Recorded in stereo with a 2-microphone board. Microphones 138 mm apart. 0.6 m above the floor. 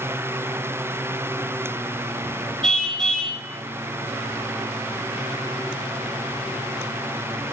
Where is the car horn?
5° left (ahead or behind), 2 m.